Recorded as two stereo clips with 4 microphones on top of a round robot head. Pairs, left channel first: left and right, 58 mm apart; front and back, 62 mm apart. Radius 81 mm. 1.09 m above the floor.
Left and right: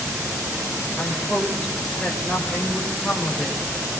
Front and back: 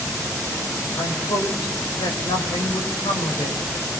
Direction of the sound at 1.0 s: 15° left.